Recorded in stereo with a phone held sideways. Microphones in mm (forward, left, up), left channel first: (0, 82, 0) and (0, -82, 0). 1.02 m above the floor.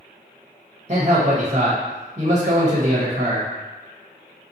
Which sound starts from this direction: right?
A man speaking, at 0.9 s.